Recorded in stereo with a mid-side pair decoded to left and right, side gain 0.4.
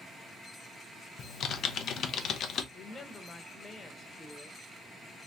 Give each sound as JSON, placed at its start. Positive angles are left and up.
{"t": 1.2, "sound": "typing on a keyboard", "azimuth_deg": 70, "distance_m": 0.6}
{"t": 2.7, "sound": "a woman speaking", "azimuth_deg": 40, "distance_m": 1.0}